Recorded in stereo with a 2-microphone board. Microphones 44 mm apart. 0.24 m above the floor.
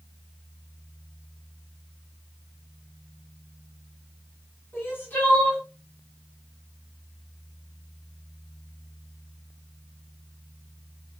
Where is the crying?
45° left (ahead or behind), 1.8 m.